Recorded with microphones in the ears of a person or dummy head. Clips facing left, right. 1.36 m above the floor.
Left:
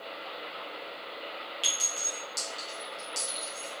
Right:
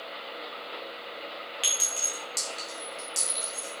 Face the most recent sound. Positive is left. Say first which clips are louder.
# right 1 dB
turn(degrees=-20)  # may be behind; listen again after turning